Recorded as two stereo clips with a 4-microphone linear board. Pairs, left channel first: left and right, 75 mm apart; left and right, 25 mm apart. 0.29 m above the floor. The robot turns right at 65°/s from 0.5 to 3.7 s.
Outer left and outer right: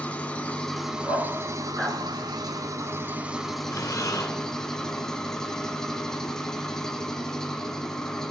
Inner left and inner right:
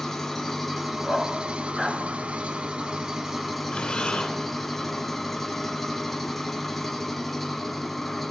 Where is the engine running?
160° left, 1.5 m; by 8.3 s 10° left, 1.5 m.